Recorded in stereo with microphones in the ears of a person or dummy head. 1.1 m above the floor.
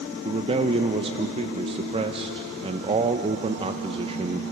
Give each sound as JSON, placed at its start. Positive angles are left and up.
{"t": 0.2, "sound": "a man speaking", "side_deg": -25, "distance_m": 0.7}